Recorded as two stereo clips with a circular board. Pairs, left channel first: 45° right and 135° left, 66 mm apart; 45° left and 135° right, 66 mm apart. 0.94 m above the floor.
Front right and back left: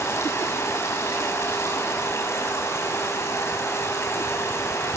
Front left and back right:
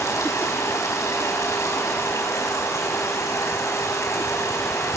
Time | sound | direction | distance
0.0 | running water | 5° left | 5 m